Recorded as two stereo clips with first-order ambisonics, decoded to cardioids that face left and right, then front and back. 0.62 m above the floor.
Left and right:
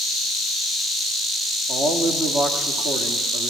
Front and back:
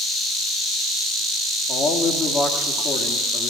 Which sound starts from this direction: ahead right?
A man speaking, at 1.7 s.